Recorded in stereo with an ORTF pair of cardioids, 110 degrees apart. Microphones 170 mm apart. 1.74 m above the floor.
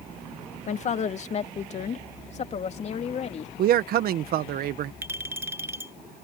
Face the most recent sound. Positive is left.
turn(degrees=-15)